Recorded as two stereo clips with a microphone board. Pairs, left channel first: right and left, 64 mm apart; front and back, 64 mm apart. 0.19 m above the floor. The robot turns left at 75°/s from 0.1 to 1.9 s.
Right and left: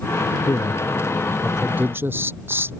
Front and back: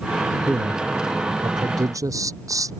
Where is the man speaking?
105° right; by 2.7 s 145° left.